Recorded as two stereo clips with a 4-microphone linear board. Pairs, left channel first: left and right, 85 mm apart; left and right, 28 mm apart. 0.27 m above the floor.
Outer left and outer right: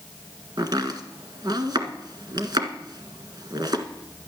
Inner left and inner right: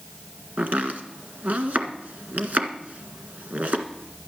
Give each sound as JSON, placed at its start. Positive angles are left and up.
{"t": 0.6, "sound": "chopping", "side_deg": -60, "distance_m": 1.6}